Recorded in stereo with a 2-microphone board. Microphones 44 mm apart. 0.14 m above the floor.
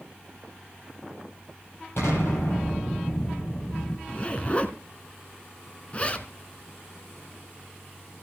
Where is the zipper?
30° left (ahead or behind), 1.1 m.